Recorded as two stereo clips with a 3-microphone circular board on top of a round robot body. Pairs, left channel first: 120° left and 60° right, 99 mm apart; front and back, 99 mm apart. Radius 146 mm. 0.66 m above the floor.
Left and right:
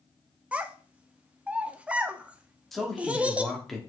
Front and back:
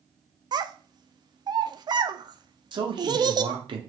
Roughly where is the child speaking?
Behind right.